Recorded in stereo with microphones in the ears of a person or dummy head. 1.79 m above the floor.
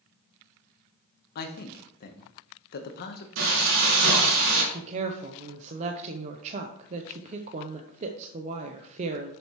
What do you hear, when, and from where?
1.4 s a man speaking: 55° left (ahead or behind), 1.2 m
3.4 s frying: 70° right (ahead or behind), 3 m
4.7 s a woman speaking: 35° right (ahead or behind), 0.8 m